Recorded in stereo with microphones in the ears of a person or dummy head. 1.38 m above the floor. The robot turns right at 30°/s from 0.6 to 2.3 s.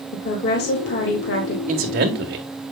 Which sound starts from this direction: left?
A woman speaking, at 0.1 s.